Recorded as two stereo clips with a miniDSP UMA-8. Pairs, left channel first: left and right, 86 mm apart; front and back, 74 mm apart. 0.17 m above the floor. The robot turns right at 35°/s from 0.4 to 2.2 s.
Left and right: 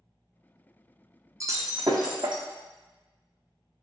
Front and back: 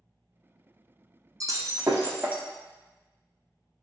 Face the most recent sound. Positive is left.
turn(degrees=-115)